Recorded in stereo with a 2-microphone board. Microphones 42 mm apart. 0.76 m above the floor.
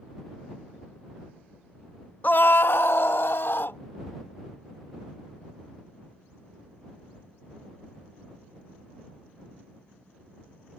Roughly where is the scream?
Left.